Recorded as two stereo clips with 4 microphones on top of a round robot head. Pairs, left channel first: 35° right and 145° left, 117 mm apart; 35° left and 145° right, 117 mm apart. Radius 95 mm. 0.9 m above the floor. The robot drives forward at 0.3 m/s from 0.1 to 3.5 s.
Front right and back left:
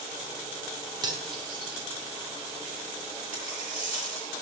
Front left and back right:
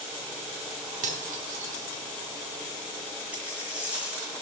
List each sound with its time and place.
1.0 s cutlery clinking: 160° right, 1.2 m; by 1.9 s 165° right, 1.5 m
3.3 s a dropped coin: 135° left, 2.5 m